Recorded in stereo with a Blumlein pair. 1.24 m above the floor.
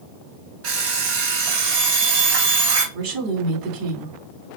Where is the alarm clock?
50° right, 3 m.